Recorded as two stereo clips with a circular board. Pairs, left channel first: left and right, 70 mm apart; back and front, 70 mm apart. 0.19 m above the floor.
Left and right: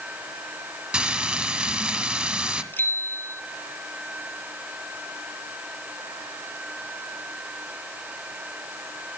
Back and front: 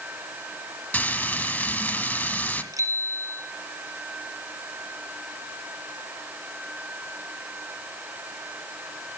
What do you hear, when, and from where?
0.9 s frying: 150° right, 1.4 m
2.7 s a bicycle bell: 30° left, 3 m